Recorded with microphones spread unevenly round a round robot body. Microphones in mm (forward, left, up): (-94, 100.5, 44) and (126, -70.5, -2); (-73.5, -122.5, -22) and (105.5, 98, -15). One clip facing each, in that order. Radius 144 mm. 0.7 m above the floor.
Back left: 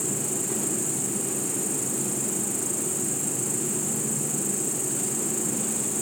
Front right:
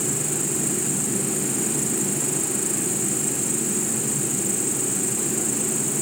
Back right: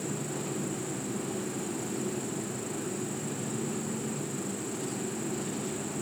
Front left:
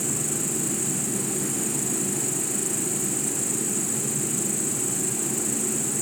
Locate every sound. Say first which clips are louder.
0.0 s an insect: front right 3 dB, front left 4 dB; 50° left